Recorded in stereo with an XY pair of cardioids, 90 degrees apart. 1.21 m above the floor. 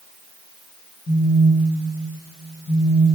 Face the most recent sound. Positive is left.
turn(degrees=50)